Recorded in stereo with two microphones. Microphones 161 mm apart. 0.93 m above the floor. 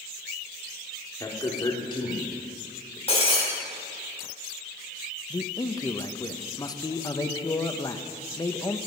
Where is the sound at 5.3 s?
20° left (ahead or behind), 0.7 m.